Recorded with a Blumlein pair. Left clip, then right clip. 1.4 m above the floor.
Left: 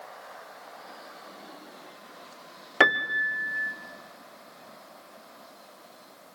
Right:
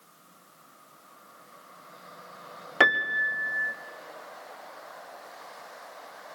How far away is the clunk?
I don't hear a clunk.